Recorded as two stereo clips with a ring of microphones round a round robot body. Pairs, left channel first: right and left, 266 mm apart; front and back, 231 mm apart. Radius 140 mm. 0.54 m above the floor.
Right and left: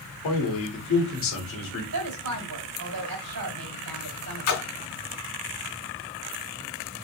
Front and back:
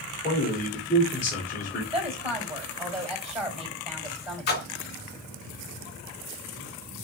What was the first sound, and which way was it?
A man speaking, 60° right.